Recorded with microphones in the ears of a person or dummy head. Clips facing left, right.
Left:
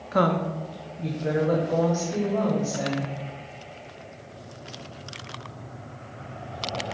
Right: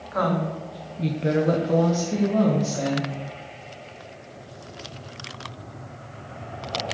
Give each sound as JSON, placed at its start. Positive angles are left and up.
{"t": 0.1, "sound": "a woman speaking", "side_deg": 40, "distance_m": 0.8}